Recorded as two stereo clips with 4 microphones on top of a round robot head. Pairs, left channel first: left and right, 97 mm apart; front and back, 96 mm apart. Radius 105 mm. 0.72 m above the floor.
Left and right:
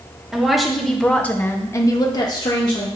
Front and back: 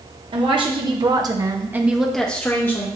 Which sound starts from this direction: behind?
A woman speaking, at 0.3 s.